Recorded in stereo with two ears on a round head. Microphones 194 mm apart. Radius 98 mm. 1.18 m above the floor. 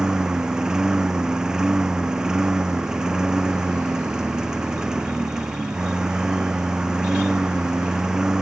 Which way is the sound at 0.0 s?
5° right (ahead or behind).